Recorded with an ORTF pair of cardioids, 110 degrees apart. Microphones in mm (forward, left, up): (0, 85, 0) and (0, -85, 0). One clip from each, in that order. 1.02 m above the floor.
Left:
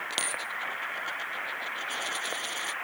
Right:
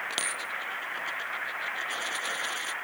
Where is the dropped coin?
5° left.